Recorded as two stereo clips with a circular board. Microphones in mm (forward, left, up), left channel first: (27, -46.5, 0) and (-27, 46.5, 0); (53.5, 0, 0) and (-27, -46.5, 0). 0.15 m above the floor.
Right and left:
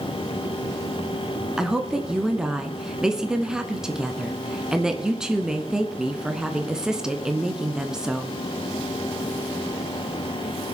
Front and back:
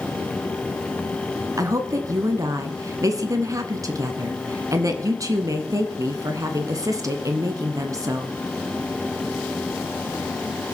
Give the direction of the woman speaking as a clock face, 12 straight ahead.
5 o'clock.